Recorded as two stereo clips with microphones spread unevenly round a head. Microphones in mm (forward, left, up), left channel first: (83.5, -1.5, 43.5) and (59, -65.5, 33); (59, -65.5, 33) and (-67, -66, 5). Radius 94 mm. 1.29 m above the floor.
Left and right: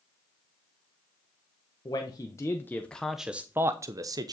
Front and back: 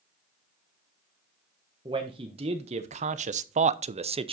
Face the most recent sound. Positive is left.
turn(degrees=-140)